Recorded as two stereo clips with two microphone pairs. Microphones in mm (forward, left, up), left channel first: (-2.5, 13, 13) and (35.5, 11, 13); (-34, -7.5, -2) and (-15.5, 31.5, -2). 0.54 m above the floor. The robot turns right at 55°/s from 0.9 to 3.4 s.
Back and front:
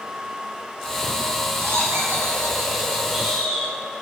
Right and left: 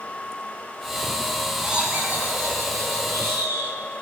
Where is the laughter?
15° right, 4.5 m; by 3.8 s 85° left, 4.5 m.